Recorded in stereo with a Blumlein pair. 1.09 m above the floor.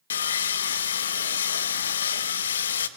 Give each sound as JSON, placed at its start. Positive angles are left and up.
{"t": 0.1, "sound": "sawing", "azimuth_deg": 65, "distance_m": 1.2}